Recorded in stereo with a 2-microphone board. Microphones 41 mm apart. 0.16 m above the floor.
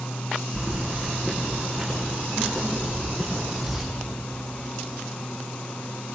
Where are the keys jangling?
5° left (ahead or behind), 6 m.